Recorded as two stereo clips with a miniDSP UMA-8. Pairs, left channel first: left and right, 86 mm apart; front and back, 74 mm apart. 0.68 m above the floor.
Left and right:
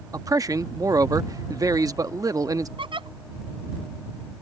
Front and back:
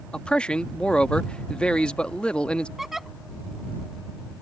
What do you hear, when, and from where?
0.1 s a man speaking: 70° right
2.8 s a giggle: 95° right